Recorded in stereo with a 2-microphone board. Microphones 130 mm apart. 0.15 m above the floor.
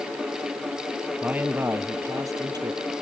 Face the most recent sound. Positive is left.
turn(degrees=-35)  # may be behind; listen again after turning